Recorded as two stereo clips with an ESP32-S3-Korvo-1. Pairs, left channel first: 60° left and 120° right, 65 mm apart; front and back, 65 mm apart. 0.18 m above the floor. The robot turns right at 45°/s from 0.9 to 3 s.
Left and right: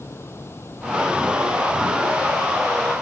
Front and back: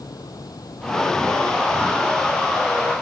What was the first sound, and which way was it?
Running water, 10° left.